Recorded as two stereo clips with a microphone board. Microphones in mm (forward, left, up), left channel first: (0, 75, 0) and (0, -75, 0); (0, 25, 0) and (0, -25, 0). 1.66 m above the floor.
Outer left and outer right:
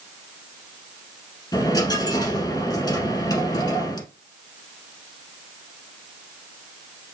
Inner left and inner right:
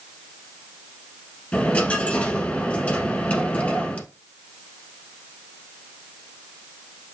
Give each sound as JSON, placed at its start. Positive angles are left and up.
{"t": 1.5, "sound": "a dropped coin", "side_deg": 30, "distance_m": 1.9}